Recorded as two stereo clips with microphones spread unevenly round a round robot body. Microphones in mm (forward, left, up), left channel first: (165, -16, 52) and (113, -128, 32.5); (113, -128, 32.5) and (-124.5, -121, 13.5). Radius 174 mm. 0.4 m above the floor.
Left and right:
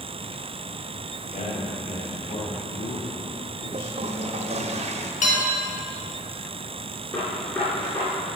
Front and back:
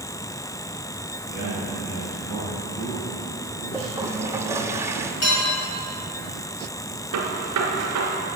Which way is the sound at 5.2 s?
55° left.